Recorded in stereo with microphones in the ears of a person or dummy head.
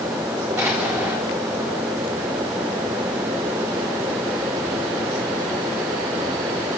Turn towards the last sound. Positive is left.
turn(degrees=-15)  # may be behind; listen again after turning